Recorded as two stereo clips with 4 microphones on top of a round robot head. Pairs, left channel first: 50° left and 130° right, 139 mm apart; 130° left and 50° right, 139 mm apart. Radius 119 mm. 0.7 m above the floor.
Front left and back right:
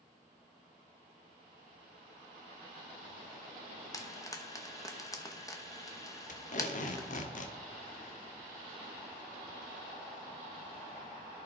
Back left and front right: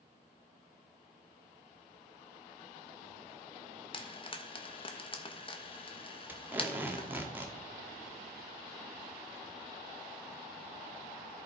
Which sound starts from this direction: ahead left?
Tape being pulled, at 6.3 s.